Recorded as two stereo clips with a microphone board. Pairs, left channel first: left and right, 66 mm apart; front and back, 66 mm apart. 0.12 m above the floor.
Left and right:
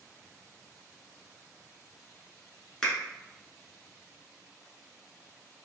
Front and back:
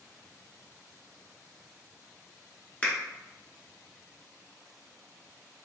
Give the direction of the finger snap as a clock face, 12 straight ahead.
11 o'clock.